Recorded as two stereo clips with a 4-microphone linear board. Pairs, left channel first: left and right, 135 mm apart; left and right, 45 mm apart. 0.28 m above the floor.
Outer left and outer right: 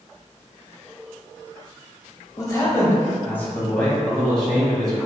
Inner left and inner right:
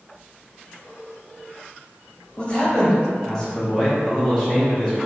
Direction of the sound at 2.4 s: 25° left (ahead or behind).